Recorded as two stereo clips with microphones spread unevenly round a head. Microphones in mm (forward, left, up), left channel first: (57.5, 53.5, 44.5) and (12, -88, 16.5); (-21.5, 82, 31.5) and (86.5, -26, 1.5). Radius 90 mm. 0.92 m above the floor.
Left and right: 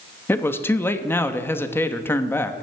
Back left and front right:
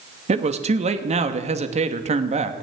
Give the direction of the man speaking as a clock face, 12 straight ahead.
12 o'clock.